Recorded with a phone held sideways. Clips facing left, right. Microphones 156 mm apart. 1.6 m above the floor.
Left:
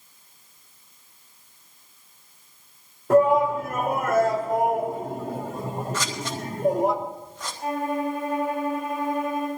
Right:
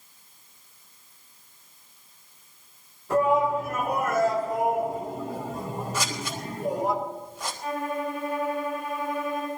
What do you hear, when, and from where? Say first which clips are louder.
3.1 s a shout: left 5 dB; 60° left (ahead or behind), 3.5 m
5.9 s scissors: left 1 dB; 10° right (ahead or behind), 3 m
7.6 s a violin: left 4 dB; 50° left (ahead or behind), 8 m